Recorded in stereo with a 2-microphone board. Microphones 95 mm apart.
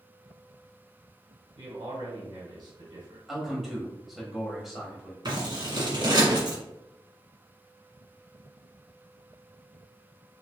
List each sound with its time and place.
1.6 s a man speaking: 50° right (ahead or behind), 2.0 m
3.3 s a man speaking: centre (ahead or behind), 1.1 m
5.2 s scissors: 50° right (ahead or behind), 1.3 m